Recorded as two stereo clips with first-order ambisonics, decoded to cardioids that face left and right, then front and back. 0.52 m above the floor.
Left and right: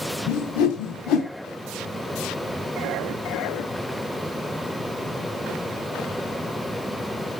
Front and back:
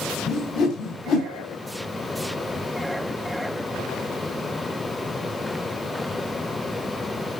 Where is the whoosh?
50° left, 1.6 m.